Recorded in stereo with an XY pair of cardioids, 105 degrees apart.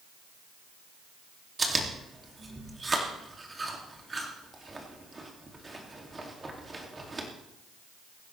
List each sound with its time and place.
1.6 s chewing: 25° right, 2.5 m